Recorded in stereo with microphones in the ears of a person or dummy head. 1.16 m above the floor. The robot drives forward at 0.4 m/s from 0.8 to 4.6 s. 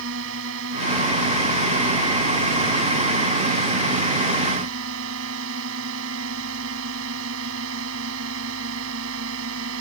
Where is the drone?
70° right (ahead or behind).